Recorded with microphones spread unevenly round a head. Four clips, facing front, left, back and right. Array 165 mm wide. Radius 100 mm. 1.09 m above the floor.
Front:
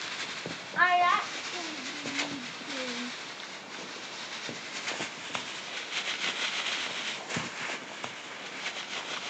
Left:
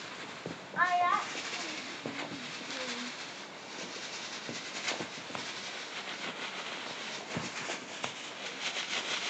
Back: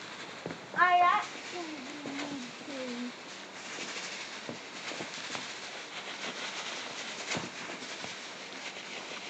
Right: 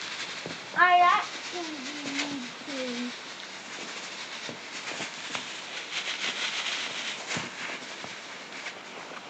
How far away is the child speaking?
About 0.6 m.